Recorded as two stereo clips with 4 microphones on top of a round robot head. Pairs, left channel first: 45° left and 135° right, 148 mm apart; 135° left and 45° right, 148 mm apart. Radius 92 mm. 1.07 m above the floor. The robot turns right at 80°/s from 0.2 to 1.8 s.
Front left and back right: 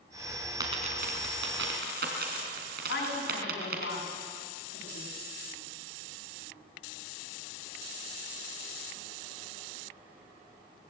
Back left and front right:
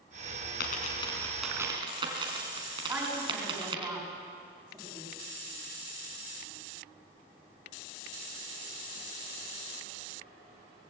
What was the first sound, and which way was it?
A dropped coin, 160° left.